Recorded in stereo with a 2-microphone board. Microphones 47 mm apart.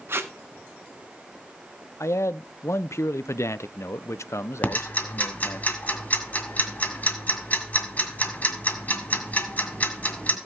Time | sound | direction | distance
0.1 | tape being pulled | 55° right (ahead or behind) | 1.1 m
2.0 | a man speaking | 85° left | 0.5 m
4.6 | ticking | 35° left (ahead or behind) | 2 m